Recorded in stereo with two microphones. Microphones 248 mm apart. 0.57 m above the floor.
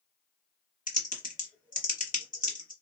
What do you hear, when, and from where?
0.9 s typing on a keyboard: 35° left (ahead or behind), 0.8 m